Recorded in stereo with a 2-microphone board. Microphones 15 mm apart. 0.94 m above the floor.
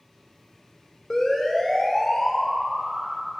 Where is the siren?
60° left (ahead or behind), 3.5 m; by 3.3 s 25° left (ahead or behind), 5 m.